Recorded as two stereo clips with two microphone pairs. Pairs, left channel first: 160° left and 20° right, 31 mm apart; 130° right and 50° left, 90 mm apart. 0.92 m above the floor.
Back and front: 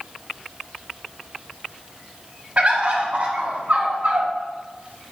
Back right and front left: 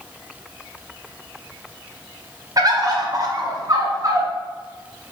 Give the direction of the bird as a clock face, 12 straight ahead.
12 o'clock.